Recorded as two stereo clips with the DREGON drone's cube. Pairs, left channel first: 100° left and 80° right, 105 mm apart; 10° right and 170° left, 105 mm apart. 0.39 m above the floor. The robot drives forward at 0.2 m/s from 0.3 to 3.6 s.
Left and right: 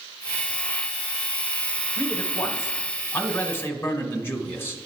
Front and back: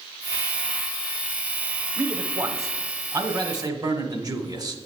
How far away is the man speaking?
About 0.9 m.